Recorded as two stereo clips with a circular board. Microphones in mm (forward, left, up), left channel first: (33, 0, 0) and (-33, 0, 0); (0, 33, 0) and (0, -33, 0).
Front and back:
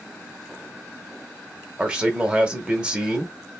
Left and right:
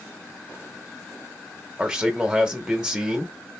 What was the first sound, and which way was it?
A man speaking, 140° right.